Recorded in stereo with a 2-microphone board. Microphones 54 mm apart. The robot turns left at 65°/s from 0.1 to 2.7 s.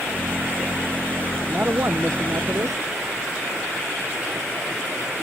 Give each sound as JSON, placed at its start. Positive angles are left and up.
{"t": 1.5, "sound": "a man speaking", "azimuth_deg": -25}